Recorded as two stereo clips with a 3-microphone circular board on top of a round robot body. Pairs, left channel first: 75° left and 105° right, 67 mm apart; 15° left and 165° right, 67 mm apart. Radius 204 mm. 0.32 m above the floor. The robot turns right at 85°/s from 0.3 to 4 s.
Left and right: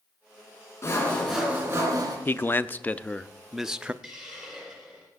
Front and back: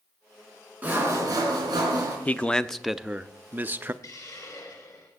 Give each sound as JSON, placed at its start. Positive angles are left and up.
{"t": 0.8, "sound": "sawing", "azimuth_deg": 125, "distance_m": 3.5}
{"t": 2.2, "sound": "a man speaking", "azimuth_deg": 60, "distance_m": 0.9}
{"t": 4.0, "sound": "a hiss", "azimuth_deg": -20, "distance_m": 4.5}